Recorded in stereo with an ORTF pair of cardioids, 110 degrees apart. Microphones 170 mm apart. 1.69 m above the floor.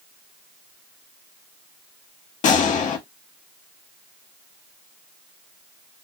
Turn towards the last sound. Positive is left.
turn(degrees=50)